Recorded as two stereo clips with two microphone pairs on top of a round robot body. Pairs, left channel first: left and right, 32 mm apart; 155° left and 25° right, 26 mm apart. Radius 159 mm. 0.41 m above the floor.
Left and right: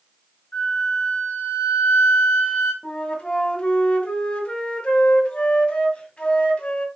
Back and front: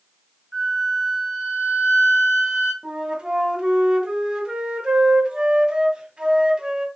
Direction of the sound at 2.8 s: 35° left.